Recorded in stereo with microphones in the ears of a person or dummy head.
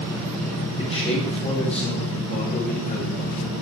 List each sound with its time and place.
0.8 s a man speaking: 30° left (ahead or behind), 6.5 m; by 3.5 s 40° left (ahead or behind), 6 m